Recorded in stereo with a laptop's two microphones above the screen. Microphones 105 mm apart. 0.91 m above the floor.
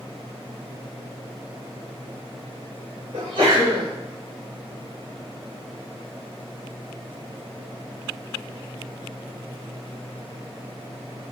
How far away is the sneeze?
About 1.7 m.